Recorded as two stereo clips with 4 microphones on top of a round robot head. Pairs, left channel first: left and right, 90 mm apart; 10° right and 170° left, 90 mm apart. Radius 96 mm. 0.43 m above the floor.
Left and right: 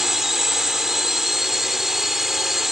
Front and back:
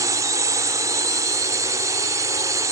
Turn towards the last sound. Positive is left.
turn(degrees=-175)